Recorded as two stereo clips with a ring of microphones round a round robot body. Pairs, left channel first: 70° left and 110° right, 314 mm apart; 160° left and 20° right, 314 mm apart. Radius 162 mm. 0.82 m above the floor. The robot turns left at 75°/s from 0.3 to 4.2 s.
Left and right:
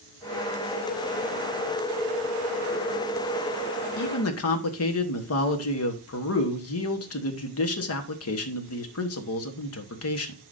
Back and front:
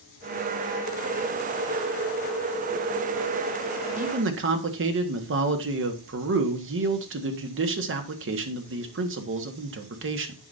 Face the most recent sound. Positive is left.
turn(degrees=25)